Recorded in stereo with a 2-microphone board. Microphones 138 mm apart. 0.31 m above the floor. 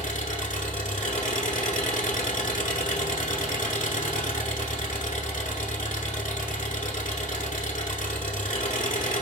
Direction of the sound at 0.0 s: 80° left.